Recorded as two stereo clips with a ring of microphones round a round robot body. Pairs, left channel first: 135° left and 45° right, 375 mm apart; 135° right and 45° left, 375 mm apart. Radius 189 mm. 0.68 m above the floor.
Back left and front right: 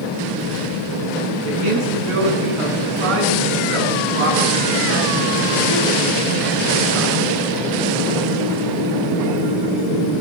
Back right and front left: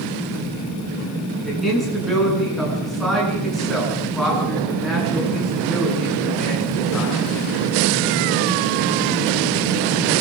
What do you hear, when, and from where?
1.4 s a man speaking: 45° right, 9 m